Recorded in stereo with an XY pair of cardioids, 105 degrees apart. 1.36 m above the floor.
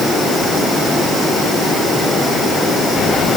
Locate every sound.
Only background noise.